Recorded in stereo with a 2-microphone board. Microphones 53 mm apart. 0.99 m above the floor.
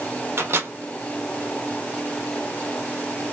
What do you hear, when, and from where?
0.4 s a microwave: 50° right (ahead or behind), 1.0 m